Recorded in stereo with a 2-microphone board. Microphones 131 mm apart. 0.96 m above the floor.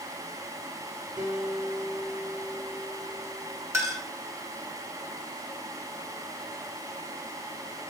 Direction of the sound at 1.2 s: 40° right (ahead or behind).